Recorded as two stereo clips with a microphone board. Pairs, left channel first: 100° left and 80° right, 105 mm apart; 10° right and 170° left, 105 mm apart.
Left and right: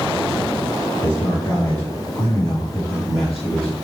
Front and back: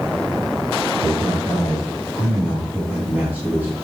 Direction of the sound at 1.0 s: 80° left.